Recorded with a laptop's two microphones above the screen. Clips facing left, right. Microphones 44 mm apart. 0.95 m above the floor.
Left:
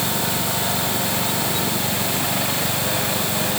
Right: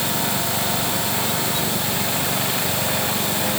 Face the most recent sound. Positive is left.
No sound to turn to.